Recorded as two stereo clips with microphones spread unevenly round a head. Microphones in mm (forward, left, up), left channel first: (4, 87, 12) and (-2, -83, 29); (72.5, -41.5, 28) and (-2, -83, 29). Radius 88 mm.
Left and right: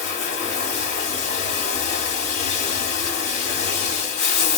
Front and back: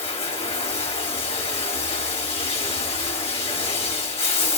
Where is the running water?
35° left, 2 m.